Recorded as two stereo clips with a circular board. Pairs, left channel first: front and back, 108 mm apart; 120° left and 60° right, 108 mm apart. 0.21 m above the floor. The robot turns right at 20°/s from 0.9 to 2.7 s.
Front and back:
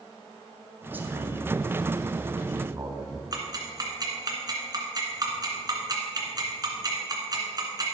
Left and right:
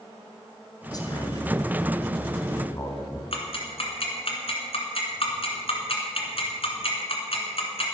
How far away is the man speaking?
About 1.9 m.